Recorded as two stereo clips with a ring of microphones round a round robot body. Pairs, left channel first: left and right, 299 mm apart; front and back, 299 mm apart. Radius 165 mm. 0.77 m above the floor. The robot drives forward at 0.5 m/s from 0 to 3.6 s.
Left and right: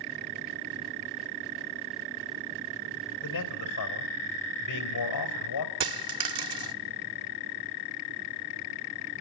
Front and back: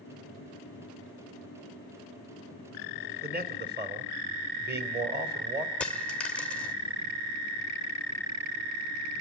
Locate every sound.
3.2 s a man speaking: 120° left, 3 m; by 5.7 s 125° left, 3.5 m
5.8 s a dropped coin: 85° right, 1.1 m